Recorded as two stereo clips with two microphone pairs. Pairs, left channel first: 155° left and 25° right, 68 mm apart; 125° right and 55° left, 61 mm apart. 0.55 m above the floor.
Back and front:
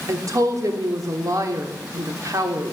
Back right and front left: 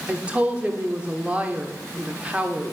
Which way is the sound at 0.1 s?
10° right.